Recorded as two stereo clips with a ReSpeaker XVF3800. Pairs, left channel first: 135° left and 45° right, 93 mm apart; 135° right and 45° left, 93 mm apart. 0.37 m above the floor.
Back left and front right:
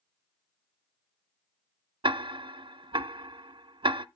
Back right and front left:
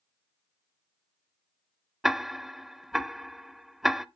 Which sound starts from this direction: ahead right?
Ticking, at 2.0 s.